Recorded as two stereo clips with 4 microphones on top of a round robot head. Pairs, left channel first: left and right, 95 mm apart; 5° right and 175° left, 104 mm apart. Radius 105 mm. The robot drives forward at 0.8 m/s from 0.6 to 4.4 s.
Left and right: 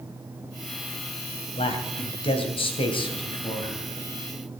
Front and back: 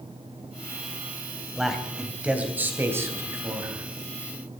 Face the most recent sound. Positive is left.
turn(degrees=130)